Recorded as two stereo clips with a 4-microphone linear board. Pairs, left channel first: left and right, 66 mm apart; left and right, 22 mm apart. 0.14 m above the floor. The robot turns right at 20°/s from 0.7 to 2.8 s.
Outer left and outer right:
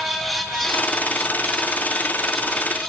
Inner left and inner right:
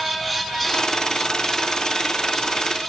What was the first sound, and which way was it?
Only background noise.